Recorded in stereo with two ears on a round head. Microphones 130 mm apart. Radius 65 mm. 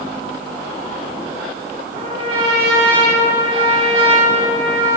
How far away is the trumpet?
About 3 m.